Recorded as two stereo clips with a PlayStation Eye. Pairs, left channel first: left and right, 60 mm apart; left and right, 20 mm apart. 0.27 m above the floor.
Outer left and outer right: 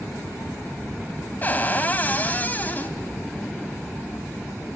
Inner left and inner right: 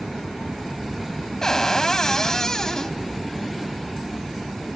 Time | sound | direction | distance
1.4 | a cupboard door | 30° left (ahead or behind) | 1.4 m